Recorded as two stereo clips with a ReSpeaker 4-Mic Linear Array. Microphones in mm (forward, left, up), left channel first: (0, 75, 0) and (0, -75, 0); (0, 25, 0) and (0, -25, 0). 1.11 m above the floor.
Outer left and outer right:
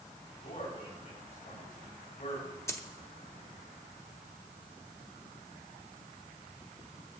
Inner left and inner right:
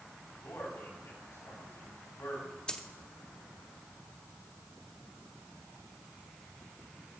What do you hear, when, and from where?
0.4 s a man speaking: 60° left (ahead or behind), 5.5 m
2.7 s a dropped coin: 20° left (ahead or behind), 0.7 m